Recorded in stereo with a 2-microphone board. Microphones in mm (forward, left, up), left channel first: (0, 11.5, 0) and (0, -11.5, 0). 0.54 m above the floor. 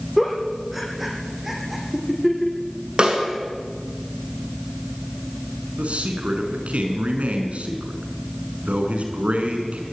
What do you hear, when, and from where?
0.2 s a giggle: 5° right (ahead or behind), 5.5 m
3.0 s a snare drum: 45° right (ahead or behind), 6 m
5.8 s a man speaking: 80° right, 5 m